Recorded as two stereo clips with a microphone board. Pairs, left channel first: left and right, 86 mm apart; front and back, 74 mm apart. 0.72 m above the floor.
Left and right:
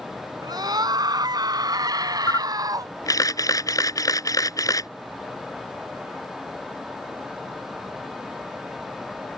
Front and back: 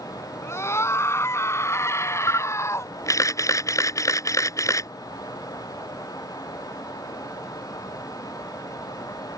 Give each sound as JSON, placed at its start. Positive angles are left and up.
{"t": 0.4, "sound": "a scream", "azimuth_deg": -55}
{"t": 2.3, "sound": "a camera shutter", "azimuth_deg": 40}